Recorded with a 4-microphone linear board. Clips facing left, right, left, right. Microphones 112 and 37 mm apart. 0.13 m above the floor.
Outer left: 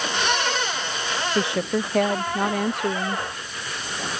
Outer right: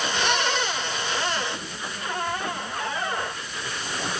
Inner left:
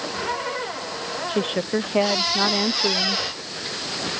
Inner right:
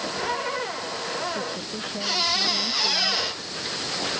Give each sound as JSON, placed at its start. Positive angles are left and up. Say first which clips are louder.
{"t": 1.3, "sound": "a woman speaking", "louder": "outer left 7 dB, inner left 7 dB", "side_deg": 75}